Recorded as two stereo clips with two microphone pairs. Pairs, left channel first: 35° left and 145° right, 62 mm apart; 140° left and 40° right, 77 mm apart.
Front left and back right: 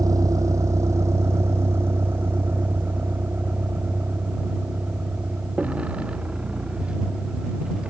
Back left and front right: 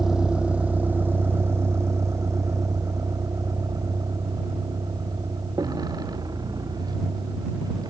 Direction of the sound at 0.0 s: 125° right.